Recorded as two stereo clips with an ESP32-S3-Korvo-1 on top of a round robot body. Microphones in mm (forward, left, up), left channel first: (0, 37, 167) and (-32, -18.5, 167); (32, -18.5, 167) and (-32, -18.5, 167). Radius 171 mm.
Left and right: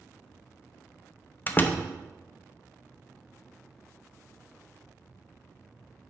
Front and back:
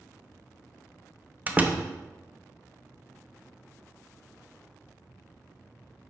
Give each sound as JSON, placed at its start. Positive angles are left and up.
{"t": 1.5, "sound": "a door slam", "azimuth_deg": 115, "distance_m": 0.8}